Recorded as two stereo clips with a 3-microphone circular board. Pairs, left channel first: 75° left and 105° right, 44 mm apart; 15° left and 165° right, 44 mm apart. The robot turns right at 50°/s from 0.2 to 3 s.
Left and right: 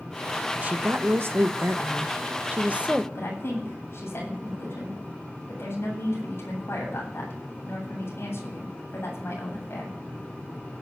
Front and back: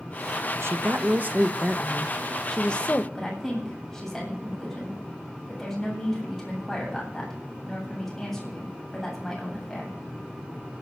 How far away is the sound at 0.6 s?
About 1.2 m.